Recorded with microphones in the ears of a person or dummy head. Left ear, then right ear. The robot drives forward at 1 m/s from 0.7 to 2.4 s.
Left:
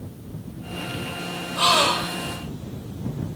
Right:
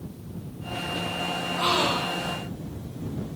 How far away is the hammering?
No hammering in this recording.